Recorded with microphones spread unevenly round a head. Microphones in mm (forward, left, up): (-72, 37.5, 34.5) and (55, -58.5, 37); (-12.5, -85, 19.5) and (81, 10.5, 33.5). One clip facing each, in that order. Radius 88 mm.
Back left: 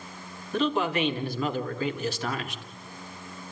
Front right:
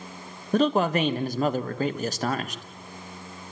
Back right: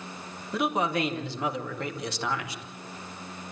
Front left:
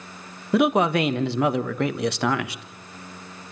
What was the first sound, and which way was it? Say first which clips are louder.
A man speaking: front right 4 dB, front left 8 dB; 20° left.